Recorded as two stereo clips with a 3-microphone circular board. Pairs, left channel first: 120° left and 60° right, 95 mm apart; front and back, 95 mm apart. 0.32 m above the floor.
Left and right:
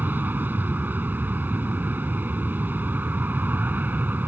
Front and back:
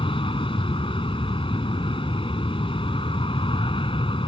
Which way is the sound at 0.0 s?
10° left.